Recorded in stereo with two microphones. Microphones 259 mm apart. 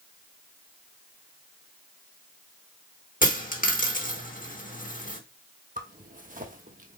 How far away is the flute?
No flute in this recording.